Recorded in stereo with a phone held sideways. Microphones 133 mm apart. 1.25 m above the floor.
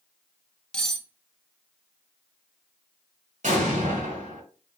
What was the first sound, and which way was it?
Cutlery clinking, 5° left (ahead or behind).